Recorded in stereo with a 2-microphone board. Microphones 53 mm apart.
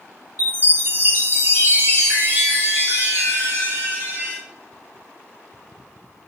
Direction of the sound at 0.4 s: 40° right (ahead or behind).